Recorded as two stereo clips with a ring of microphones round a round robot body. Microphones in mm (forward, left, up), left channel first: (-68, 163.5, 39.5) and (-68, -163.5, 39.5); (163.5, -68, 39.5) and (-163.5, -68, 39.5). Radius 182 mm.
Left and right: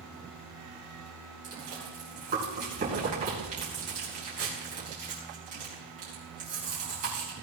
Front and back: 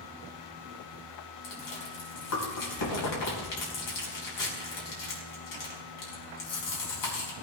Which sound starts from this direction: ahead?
Chewing, at 1.4 s.